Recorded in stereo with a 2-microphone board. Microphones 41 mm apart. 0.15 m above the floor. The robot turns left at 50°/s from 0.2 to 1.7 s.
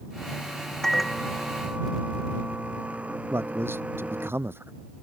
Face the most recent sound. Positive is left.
turn(degrees=-70)  # may be behind; listen again after turning